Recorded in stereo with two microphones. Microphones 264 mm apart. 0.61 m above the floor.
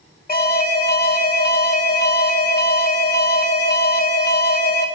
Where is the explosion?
No explosion in this recording.